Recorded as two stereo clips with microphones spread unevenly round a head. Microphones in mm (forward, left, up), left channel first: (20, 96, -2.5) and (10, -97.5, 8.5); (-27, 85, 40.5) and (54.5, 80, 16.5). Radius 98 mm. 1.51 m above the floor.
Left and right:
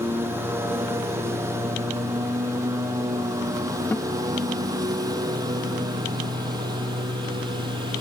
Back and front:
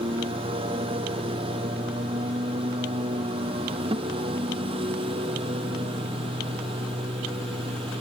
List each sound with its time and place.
0.0 s a lawn mower: 15° right; by 8.0 s 25° right
3.9 s a guitar: 10° left